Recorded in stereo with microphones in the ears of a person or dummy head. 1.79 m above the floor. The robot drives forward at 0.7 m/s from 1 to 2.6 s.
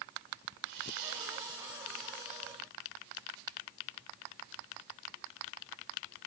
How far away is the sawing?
About 2.5 m.